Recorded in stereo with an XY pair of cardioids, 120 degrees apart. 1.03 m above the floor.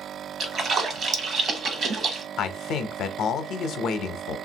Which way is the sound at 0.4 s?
45° right.